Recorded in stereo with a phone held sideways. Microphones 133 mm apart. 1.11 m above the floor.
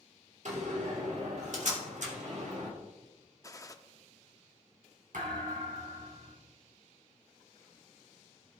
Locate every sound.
0.5 s a door slam: 65° right (ahead or behind), 2.5 m
3.4 s a gunshot: 25° left (ahead or behind), 0.8 m
5.1 s a thud: 75° right (ahead or behind), 4 m